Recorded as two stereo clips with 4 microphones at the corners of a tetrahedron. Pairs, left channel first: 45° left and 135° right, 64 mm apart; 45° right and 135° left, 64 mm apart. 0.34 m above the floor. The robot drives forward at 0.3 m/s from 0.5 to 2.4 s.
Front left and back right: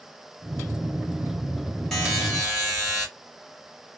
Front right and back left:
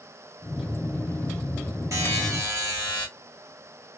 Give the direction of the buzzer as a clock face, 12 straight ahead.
8 o'clock.